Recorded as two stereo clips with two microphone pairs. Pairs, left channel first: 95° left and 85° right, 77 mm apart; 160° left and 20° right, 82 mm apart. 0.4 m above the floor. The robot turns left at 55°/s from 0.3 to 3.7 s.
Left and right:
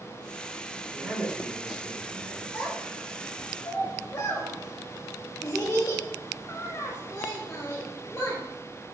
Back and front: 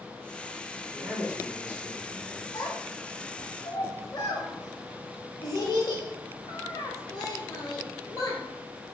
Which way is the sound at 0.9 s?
30° left.